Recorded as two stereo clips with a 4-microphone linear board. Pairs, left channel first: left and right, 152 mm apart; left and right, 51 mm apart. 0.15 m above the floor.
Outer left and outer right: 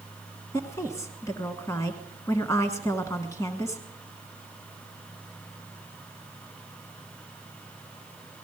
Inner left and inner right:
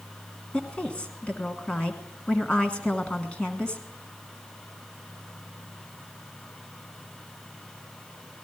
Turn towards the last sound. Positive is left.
turn(degrees=20)  # may be behind; listen again after turning